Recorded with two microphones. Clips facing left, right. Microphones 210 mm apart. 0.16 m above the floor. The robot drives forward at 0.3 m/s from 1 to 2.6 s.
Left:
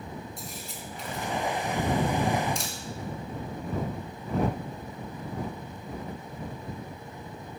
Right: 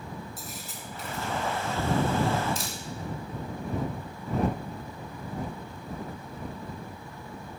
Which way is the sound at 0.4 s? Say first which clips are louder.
Left 1 dB; 5° right (ahead or behind).